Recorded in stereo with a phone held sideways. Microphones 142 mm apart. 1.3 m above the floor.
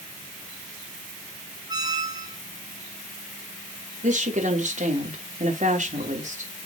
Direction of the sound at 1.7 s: 25° right (ahead or behind).